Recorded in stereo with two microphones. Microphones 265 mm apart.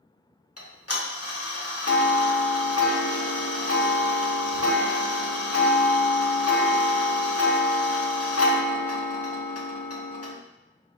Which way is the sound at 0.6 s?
65° left (ahead or behind).